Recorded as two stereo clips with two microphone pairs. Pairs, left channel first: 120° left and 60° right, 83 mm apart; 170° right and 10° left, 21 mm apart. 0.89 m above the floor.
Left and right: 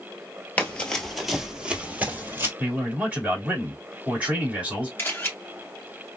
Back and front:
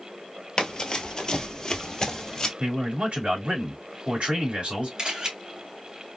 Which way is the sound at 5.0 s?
55° left.